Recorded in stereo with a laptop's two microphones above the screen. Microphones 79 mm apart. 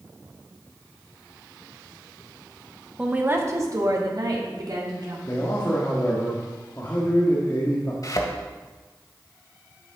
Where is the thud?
50° left (ahead or behind), 1.9 m.